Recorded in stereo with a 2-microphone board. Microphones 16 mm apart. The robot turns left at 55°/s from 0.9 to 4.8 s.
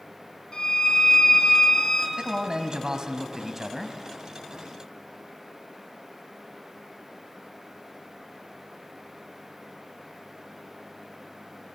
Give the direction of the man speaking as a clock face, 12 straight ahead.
3 o'clock.